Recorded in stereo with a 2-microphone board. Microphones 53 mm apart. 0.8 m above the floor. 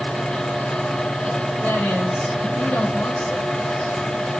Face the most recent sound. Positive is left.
turn(degrees=20)  # may be behind; listen again after turning